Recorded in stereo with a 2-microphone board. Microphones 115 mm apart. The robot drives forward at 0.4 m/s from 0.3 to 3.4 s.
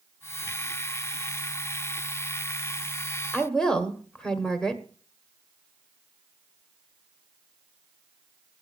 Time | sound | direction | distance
3.3 | a woman speaking | 5° left (ahead or behind) | 1.4 m